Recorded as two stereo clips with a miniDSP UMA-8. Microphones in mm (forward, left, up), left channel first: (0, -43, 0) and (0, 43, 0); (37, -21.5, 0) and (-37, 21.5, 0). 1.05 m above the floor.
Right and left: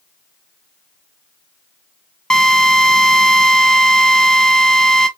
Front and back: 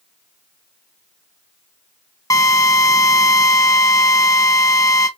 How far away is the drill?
About 1.0 m.